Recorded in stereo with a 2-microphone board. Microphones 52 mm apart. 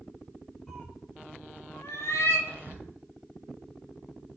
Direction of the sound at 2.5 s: 40° right (ahead or behind).